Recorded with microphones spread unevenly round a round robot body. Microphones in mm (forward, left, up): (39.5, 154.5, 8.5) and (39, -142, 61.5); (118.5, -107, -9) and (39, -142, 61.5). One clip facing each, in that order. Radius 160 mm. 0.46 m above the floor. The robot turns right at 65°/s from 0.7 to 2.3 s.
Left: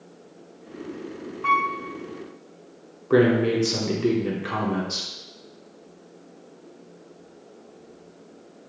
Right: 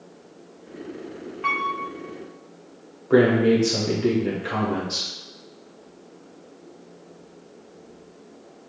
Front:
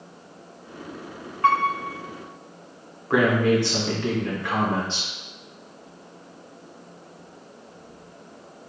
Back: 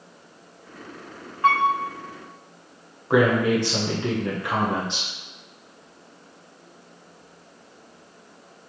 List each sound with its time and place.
1.4 s a piano: 60° right, 1.7 m; by 1.7 s 45° right, 1.7 m
3.1 s a man speaking: 60° left, 1.0 m